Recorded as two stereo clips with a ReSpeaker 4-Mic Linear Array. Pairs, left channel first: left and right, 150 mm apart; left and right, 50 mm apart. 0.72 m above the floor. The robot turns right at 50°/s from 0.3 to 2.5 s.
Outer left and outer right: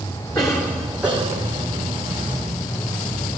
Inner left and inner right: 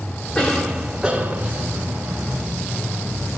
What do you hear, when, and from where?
0.3 s a cough: 155° left, 2.5 m; by 1.6 s 140° right, 2.5 m